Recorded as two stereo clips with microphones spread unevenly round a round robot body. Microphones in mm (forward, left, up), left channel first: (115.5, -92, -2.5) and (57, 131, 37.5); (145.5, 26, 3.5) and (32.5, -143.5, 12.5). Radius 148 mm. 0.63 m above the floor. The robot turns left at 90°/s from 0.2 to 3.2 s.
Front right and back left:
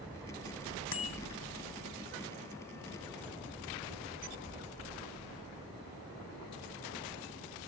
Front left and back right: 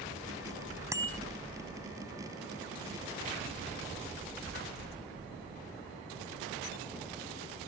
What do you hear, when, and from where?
0.9 s a bicycle bell: 45° right; by 1.2 s 70° right